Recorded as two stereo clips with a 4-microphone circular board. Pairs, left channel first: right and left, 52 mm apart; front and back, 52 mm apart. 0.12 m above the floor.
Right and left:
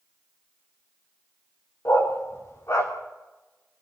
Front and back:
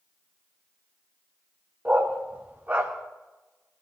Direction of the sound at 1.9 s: 120° right.